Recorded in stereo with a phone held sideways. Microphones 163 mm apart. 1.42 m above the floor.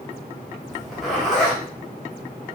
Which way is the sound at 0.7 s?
Centre (ahead or behind).